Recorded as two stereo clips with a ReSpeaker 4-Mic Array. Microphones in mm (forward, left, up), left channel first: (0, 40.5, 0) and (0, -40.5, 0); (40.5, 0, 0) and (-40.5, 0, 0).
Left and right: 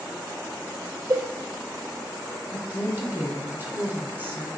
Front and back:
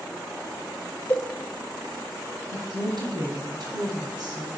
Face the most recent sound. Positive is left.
turn(degrees=-155)